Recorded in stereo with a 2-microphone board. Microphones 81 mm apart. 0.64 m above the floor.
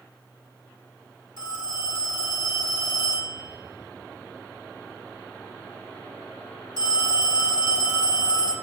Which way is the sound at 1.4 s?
65° right (ahead or behind).